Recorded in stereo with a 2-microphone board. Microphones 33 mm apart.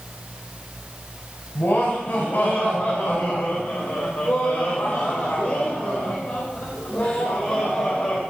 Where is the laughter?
65° left (ahead or behind), 5 m; by 8.2 s 45° left (ahead or behind), 4 m.